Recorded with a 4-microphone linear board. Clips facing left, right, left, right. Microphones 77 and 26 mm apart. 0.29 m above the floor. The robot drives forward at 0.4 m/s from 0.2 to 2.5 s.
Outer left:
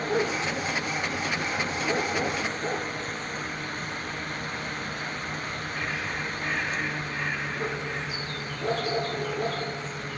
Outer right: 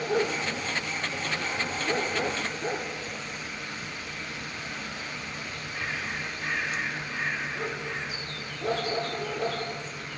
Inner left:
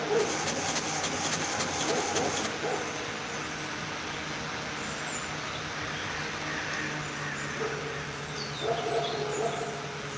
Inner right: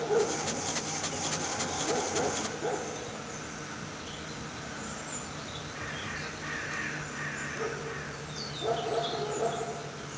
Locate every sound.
Only background noise.